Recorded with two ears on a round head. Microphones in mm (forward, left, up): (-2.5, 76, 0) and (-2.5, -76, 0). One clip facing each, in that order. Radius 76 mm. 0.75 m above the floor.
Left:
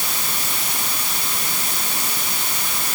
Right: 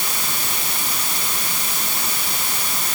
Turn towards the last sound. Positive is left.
No sound to turn to.